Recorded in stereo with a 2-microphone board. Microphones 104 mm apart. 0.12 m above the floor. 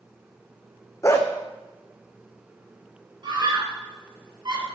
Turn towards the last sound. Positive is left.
turn(degrees=-50)  # may be behind; listen again after turning